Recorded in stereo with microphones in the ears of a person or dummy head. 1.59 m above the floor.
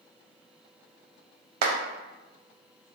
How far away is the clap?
About 0.7 m.